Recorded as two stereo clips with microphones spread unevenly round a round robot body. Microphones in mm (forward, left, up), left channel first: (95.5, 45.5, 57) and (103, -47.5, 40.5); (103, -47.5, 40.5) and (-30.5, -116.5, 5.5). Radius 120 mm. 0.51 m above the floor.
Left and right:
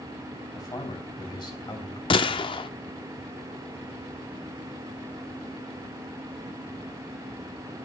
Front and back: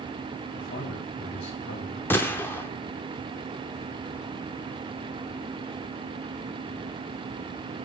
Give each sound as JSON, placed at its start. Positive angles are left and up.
{"t": 0.5, "sound": "a man speaking", "azimuth_deg": 45, "distance_m": 4.0}
{"t": 2.1, "sound": "a gunshot", "azimuth_deg": 115, "distance_m": 0.6}